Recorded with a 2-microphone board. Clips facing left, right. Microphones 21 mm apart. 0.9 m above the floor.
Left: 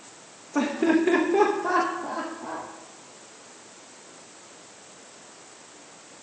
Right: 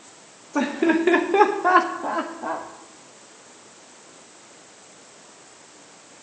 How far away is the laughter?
About 1.1 m.